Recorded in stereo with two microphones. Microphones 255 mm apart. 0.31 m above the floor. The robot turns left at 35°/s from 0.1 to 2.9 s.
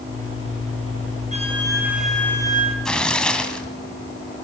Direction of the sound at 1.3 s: 155° right.